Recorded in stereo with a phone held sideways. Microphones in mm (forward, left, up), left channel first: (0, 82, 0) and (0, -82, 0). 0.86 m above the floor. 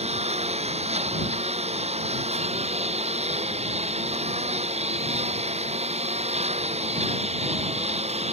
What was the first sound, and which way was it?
A lawn mower, 40° right (ahead or behind).